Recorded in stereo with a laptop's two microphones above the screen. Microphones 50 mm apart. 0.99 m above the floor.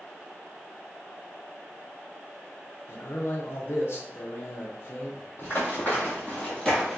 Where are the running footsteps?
45° left (ahead or behind), 1.4 m; by 7.0 s 5° left (ahead or behind), 1.2 m.